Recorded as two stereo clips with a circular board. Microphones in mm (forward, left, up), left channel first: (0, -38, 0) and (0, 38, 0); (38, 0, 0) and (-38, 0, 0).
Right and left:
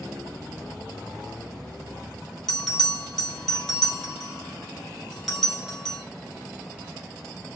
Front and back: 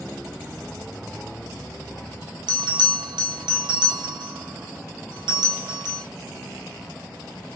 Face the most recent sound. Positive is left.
turn(degrees=-175)